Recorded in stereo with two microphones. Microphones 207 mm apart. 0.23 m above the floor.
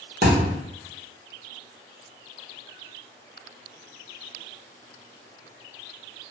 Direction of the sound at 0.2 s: 50° right (ahead or behind).